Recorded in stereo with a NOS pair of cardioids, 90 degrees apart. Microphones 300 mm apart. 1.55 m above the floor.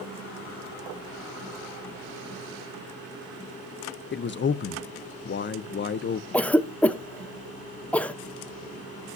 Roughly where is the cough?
Ahead.